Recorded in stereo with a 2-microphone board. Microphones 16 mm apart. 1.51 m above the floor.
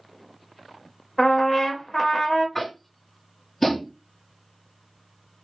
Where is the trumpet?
30° left (ahead or behind), 0.7 m.